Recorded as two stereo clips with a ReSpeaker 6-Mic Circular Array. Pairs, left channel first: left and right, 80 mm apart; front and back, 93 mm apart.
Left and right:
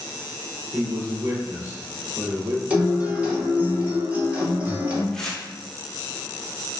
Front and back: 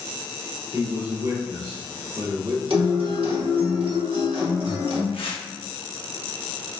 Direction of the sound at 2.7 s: 160° right.